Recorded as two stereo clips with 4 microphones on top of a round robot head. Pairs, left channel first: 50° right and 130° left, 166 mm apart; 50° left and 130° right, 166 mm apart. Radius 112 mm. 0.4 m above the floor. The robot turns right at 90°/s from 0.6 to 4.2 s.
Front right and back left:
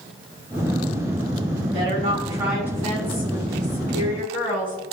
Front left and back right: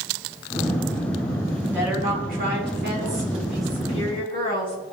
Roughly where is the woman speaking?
Behind left.